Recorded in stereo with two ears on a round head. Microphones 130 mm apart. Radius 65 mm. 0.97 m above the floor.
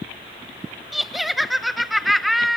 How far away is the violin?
No violin in this recording.